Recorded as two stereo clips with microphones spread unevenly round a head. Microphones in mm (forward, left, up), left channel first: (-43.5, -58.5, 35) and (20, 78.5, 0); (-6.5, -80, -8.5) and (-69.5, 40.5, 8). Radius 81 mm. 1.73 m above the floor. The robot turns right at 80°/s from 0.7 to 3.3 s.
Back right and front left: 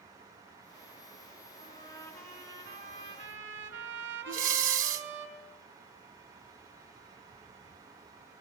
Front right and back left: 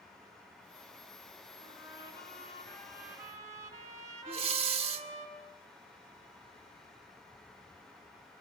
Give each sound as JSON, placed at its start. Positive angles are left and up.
{"t": 1.6, "sound": "a trumpet", "azimuth_deg": -85, "distance_m": 4.5}
{"t": 4.3, "sound": "breathing", "azimuth_deg": 100, "distance_m": 1.8}